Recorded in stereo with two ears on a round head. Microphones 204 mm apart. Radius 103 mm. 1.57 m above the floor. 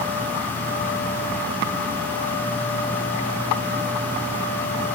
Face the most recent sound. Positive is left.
No sound to turn to.